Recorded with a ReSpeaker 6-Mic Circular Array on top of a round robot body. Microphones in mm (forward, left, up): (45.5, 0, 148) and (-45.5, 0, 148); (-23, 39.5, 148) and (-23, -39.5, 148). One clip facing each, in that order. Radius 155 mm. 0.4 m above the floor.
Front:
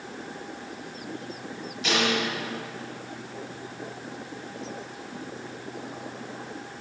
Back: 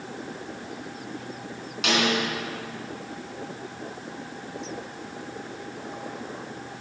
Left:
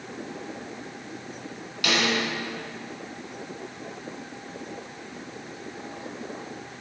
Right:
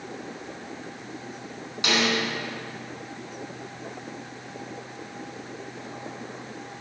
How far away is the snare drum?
About 3 m.